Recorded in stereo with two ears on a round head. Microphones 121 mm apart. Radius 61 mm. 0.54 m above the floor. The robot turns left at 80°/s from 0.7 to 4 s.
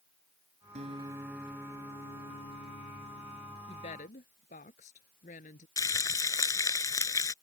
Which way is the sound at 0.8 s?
125° right.